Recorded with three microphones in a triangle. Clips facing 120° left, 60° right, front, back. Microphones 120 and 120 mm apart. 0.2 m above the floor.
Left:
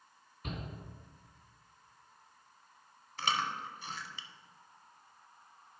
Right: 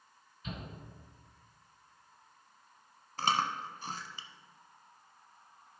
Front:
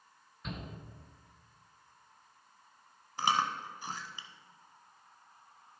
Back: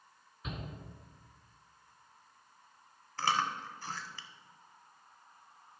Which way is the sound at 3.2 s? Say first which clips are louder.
Right 3 dB, front 1 dB; 65° right.